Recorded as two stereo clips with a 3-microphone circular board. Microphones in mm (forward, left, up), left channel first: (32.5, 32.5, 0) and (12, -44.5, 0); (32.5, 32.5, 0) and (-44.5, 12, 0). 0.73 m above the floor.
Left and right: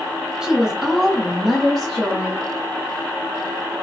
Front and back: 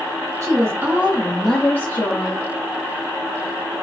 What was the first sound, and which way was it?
A woman speaking, straight behind.